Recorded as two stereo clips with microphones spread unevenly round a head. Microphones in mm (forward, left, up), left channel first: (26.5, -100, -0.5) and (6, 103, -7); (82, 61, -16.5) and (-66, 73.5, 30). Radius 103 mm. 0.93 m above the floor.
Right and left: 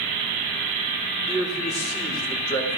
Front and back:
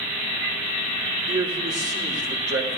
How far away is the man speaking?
About 3 m.